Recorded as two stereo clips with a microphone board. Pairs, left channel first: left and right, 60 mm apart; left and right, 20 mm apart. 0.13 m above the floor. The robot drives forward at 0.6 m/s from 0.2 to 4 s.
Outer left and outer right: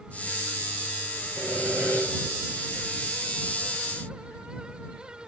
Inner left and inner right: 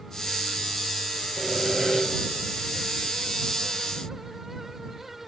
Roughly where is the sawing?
Left.